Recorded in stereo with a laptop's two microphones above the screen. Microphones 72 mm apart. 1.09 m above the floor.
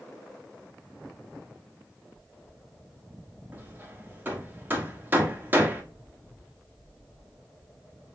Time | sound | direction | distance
3.5 | hammering | 25° right (ahead or behind) | 1.3 m